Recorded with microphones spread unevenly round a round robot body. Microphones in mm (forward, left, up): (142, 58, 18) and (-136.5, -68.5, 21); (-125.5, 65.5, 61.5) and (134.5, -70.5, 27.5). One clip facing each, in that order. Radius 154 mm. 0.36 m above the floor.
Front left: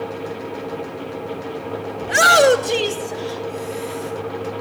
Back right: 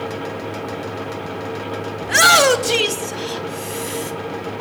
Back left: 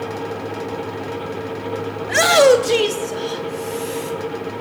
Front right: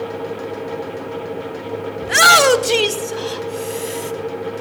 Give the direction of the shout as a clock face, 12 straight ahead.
3 o'clock.